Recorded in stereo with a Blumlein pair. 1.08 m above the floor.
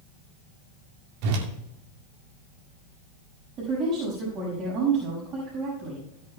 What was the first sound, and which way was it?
A whoosh, 45° right.